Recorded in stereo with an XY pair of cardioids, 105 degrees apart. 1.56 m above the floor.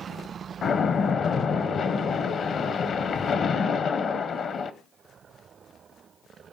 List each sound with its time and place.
0.6 s a splash: 50° left, 1.1 m